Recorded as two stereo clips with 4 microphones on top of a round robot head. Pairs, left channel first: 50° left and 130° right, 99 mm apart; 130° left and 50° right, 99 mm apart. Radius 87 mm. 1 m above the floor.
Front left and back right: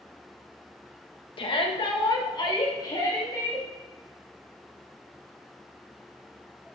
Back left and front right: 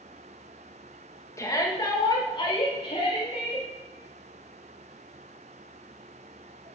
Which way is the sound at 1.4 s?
70° left.